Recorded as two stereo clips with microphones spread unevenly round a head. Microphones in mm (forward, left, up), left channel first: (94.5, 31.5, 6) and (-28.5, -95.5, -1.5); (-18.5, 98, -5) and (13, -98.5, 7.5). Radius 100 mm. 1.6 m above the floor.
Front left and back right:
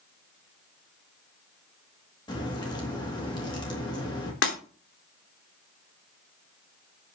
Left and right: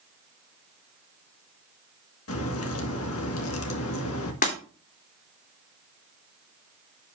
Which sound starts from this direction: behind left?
A crack, at 2.3 s.